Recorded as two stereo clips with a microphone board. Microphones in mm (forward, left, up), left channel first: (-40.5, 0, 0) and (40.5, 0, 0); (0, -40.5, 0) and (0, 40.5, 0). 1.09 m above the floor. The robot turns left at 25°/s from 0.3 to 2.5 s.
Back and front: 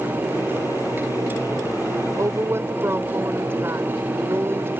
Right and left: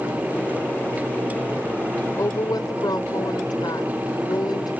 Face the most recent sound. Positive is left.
turn(degrees=-55)